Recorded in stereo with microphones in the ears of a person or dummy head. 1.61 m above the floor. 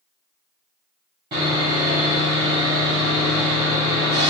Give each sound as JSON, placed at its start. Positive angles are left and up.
{"t": 1.3, "sound": "sawing", "side_deg": -30, "distance_m": 1.3}